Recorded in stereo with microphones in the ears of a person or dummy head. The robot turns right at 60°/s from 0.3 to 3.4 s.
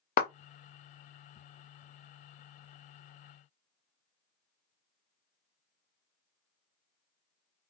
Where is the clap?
45° left (ahead or behind), 0.6 m.